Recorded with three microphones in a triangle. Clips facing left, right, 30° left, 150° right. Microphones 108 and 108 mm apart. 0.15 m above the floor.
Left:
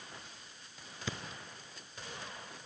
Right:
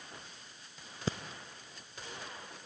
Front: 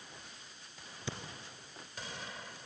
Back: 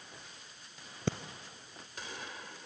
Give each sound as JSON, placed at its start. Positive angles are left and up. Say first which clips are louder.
{"t": 1.1, "sound": "breathing", "louder": "right 5 dB, back 8 dB", "azimuth_deg": -135, "distance_m": 1.0}